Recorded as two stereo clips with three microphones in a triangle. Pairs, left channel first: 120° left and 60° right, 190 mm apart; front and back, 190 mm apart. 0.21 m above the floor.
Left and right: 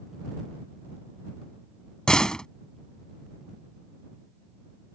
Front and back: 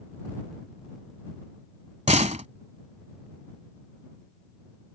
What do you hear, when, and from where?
2.1 s a door slam: 155° right